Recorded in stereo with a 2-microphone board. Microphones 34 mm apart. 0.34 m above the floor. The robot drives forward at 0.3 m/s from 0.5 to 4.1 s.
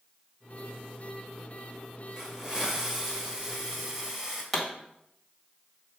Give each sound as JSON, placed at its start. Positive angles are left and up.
{"t": 2.2, "sound": "a hiss", "side_deg": -15, "distance_m": 1.3}
{"t": 4.5, "sound": "a pop", "side_deg": -5, "distance_m": 1.7}